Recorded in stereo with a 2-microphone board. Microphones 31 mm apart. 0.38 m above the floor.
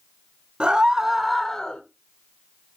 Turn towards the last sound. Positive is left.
turn(degrees=25)  # may be behind; listen again after turning